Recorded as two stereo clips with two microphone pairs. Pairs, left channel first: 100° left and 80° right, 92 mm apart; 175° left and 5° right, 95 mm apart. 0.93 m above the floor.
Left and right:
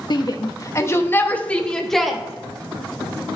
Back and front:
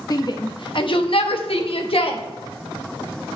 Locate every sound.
0.1 s a shout: 135° left, 1.0 m; by 2.2 s 170° right, 1.3 m